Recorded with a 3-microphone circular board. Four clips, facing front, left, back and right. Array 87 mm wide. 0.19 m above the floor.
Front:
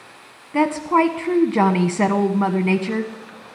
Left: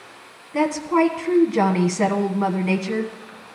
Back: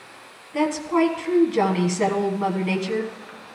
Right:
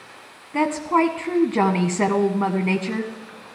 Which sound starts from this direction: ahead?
A woman speaking, at 0.5 s.